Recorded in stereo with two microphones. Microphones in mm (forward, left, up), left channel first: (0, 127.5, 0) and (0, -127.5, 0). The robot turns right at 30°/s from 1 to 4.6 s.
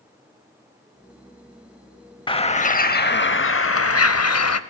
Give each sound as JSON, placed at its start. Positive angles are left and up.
{"t": 2.3, "sound": "a bird", "azimuth_deg": 20, "distance_m": 0.6}